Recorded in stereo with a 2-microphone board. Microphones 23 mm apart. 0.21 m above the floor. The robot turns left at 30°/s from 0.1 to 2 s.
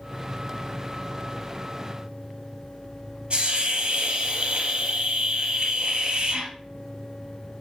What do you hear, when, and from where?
3.3 s a hiss: 55° right (ahead or behind), 1.4 m